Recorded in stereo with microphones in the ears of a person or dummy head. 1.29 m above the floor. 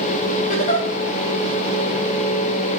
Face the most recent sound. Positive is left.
turn(degrees=40)  # may be behind; listen again after turning